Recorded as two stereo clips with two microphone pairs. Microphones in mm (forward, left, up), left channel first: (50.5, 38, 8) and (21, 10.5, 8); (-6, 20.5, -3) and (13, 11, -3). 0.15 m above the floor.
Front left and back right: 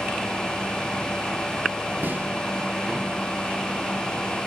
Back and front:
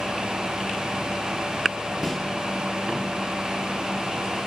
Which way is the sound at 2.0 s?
105° right.